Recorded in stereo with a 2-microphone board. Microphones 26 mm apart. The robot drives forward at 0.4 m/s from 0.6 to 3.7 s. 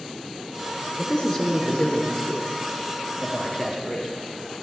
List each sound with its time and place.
1.0 s a man speaking: 35° left (ahead or behind), 2 m; by 4.1 s 25° left (ahead or behind), 2.5 m